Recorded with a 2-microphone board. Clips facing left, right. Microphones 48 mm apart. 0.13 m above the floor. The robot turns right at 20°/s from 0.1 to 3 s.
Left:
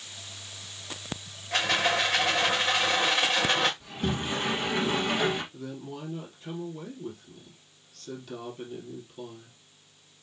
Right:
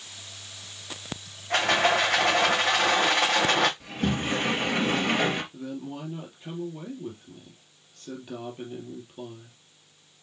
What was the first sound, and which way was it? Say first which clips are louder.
A rattle: right 3 dB; 100° right.